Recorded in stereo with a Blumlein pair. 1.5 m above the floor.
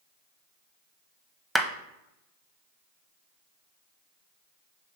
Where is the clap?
5° right, 0.8 m.